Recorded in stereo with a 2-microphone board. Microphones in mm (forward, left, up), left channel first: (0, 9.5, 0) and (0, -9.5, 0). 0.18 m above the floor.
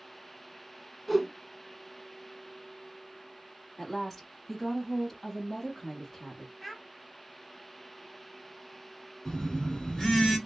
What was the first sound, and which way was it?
A whoosh, 5° left (ahead or behind).